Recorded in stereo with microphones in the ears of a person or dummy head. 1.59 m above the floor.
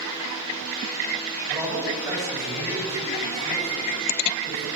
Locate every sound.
1.5 s a man speaking: 20° right (ahead or behind), 9 m; by 4.7 s 15° right (ahead or behind), 11.5 m